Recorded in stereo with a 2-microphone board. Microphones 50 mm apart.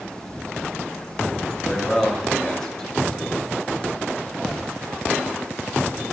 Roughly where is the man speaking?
Centre.